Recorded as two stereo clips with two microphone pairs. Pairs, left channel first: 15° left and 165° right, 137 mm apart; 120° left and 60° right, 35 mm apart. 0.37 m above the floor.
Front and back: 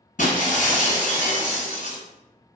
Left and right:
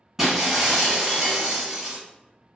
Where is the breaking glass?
15° left, 1.5 m.